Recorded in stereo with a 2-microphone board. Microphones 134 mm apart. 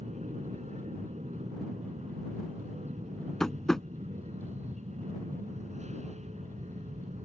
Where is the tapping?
5° left (ahead or behind).